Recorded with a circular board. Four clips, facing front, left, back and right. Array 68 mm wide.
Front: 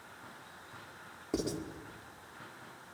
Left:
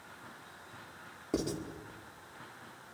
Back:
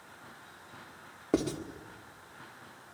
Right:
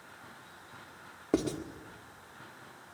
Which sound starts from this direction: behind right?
Writing, at 1.3 s.